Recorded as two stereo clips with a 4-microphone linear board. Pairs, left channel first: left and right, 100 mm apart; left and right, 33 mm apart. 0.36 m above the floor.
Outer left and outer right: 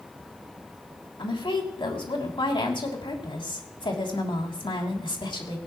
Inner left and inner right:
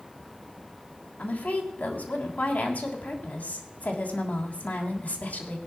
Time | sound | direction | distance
1.2 | a woman speaking | 55° left (ahead or behind) | 3 m